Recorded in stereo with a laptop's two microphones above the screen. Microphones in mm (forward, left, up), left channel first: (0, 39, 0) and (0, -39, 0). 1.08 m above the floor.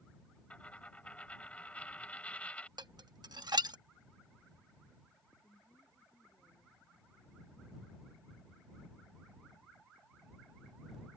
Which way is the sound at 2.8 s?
70° right (ahead or behind).